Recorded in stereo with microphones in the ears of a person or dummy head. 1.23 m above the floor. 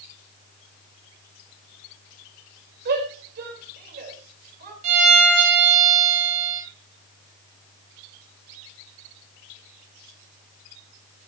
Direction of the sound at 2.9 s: 65° right (ahead or behind).